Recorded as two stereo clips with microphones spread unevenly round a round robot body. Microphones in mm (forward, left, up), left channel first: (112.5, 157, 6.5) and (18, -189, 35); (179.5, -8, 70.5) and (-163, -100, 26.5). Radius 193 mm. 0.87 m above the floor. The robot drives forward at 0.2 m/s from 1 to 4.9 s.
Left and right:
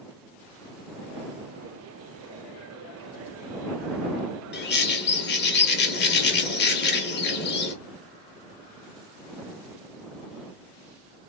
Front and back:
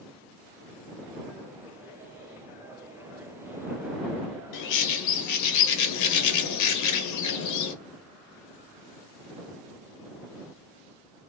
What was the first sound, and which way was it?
A bird, 30° left.